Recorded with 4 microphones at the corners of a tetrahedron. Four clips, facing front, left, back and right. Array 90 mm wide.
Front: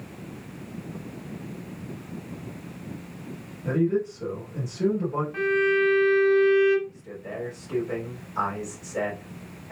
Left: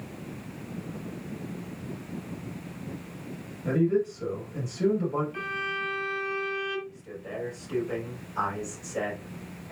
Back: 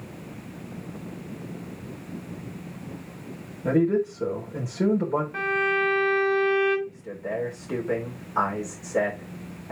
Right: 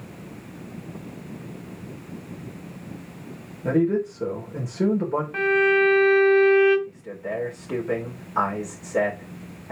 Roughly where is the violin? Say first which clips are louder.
Right 13 dB, front 5 dB; right.